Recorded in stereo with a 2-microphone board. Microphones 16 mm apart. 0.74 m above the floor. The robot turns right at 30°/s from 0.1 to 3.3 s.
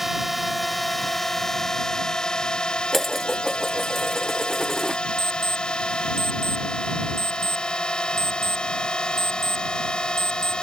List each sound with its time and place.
0.0 s a drone: 15° right; by 10.6 s 80° left
2.9 s dishes clattering: 15° left (ahead or behind); by 5.0 s 5° left (ahead or behind)
5.2 s an alarm clock: 30° left (ahead or behind)